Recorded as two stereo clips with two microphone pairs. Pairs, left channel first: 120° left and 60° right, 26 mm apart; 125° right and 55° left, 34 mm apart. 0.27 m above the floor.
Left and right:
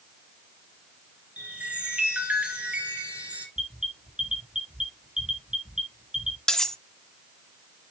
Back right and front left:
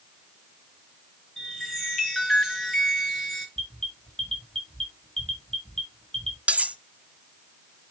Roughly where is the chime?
Ahead right.